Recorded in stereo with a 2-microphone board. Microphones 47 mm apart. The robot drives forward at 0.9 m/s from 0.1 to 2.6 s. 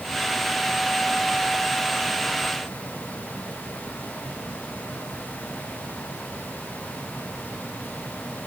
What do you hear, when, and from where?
Only background noise.